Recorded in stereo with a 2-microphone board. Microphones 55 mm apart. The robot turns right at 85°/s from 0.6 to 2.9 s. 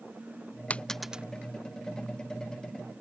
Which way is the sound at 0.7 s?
25° left (ahead or behind).